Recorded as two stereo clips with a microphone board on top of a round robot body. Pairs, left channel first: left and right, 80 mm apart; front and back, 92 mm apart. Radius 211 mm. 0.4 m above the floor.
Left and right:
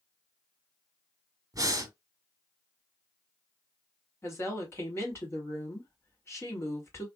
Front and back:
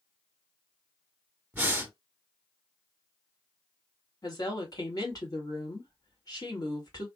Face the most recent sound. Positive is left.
turn(degrees=40)